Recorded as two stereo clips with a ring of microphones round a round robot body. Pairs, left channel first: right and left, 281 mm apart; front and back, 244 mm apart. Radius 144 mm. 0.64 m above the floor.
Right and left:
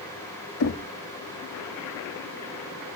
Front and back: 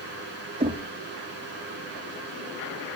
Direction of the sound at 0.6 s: 115° right.